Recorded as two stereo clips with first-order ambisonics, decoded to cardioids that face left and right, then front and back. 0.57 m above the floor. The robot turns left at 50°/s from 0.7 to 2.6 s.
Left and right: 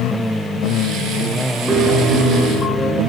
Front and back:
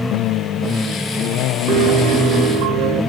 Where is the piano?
155° right, 5 m; by 3.0 s 160° left, 5 m.